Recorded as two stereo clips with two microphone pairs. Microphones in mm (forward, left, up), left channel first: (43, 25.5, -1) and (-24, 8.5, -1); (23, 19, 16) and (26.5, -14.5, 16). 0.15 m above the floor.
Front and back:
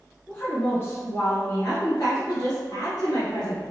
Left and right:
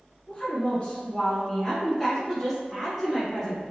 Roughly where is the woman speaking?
Ahead left.